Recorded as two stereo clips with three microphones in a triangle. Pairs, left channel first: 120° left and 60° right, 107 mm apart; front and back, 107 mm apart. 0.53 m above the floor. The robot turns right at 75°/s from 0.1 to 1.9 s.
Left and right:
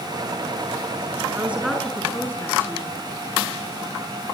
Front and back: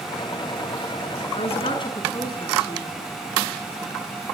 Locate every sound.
1.4 s a woman speaking: 5° left, 7 m; by 2.9 s 45° left, 7 m